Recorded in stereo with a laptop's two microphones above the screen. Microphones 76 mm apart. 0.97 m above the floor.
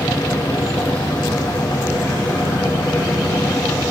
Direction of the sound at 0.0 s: 70° left (ahead or behind).